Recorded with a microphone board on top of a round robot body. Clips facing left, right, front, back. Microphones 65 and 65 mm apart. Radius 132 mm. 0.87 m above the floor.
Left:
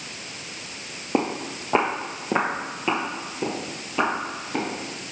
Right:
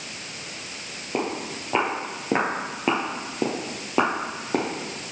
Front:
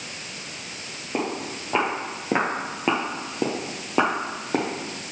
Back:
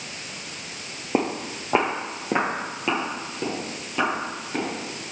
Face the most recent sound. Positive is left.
turn(degrees=-45)